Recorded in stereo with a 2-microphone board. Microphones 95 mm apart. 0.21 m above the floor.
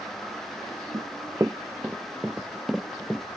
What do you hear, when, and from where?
0.9 s running footsteps: 40° right (ahead or behind); by 3.2 s 5° left (ahead or behind)